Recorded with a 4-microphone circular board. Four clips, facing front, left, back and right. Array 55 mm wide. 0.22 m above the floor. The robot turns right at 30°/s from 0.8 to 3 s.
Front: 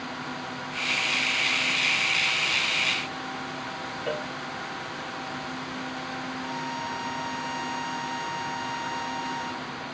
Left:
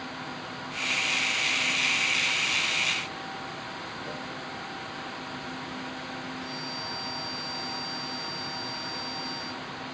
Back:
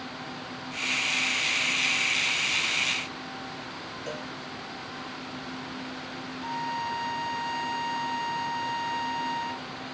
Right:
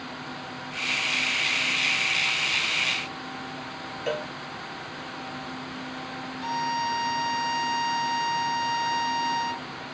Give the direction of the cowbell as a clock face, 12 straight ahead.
2 o'clock.